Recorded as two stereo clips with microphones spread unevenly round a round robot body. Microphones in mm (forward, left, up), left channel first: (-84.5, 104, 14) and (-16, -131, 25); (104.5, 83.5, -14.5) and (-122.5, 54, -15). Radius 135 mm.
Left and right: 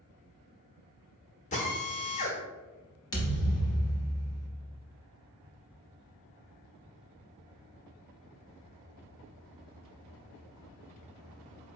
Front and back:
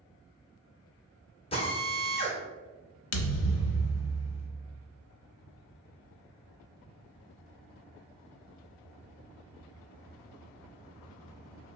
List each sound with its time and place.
1.5 s a drill: 60° left, 1.2 m
3.1 s a thud: 30° left, 0.7 m